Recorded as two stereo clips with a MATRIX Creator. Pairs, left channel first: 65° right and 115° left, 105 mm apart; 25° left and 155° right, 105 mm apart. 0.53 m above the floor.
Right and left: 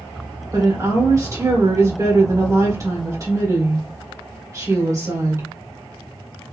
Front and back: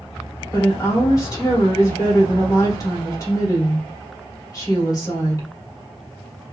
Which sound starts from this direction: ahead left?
A woman speaking, at 0.5 s.